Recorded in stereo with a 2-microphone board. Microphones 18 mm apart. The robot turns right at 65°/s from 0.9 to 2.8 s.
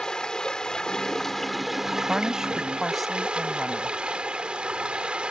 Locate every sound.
0.0 s running water: 125° left; by 5.3 s 110° right
2.1 s a woman speaking: 55° right; by 4.0 s 10° right